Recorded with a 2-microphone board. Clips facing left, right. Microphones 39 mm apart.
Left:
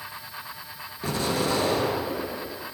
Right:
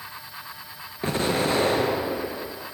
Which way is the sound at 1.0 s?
40° right (ahead or behind).